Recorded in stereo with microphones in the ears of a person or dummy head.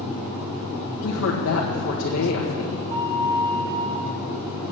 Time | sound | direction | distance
1.0 | a woman speaking | 75° left (ahead or behind) | 1.6 m
2.9 | a flute | 25° right (ahead or behind) | 1.1 m